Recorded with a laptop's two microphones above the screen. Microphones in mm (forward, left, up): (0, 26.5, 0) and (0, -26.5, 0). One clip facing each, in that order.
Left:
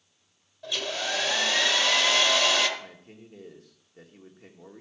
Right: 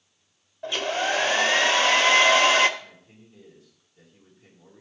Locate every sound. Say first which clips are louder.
0.6 s a hair dryer: right 6 dB; 35° right (ahead or behind), 0.8 m
2.8 s a man speaking: left 2 dB; 60° left (ahead or behind), 1.8 m